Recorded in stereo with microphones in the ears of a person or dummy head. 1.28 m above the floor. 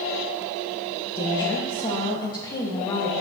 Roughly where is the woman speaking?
Left.